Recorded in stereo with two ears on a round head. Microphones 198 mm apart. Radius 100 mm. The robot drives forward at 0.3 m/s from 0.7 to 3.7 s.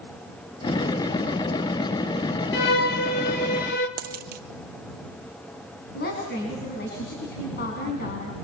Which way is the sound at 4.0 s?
45° right (ahead or behind).